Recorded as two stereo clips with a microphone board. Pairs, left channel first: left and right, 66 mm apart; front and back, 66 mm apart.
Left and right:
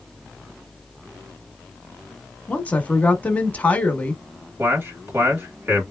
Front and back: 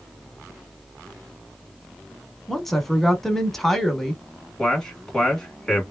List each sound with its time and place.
2.5 s a woman speaking: 75° left, 1.1 m
4.6 s a man speaking: 75° right, 1.7 m